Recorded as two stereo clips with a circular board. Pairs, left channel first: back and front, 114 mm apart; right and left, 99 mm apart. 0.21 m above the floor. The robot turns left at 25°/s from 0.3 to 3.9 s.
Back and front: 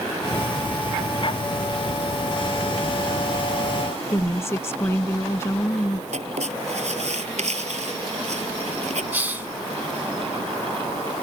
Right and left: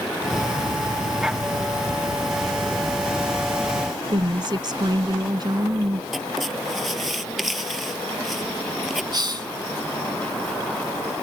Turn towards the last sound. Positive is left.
turn(degrees=70)